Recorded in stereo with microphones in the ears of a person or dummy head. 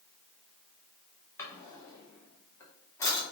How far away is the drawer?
About 0.6 m.